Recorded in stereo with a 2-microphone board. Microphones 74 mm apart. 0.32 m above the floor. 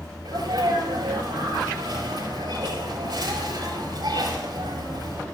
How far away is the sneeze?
About 7 m.